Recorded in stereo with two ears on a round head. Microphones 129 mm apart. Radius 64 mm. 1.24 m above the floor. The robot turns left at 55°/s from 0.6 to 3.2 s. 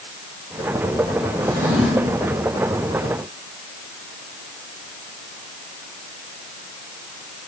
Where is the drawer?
155° right, 7 m; by 2.2 s 160° left, 7 m.